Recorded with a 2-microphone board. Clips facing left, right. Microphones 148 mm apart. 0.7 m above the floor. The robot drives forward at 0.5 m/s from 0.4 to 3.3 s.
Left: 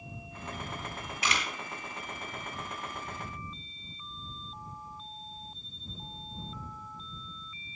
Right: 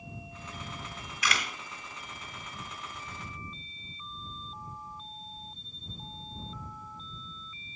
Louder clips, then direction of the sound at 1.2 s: Even; 25° left (ahead or behind).